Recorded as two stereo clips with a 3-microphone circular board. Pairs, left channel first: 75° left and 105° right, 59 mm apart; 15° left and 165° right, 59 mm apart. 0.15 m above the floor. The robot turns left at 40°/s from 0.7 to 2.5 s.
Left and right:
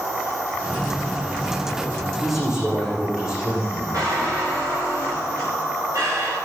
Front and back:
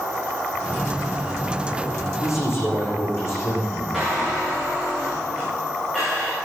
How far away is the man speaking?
About 8 m.